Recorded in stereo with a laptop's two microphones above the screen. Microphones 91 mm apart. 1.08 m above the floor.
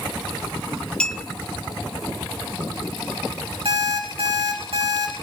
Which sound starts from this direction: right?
An alarm clock, at 3.6 s.